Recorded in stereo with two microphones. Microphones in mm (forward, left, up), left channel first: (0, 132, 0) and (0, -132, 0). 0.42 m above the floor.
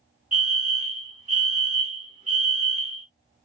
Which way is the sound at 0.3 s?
30° right (ahead or behind).